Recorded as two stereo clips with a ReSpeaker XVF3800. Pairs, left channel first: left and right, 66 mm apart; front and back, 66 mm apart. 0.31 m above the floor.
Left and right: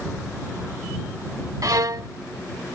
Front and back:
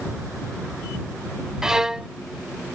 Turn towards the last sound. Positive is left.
turn(degrees=-100)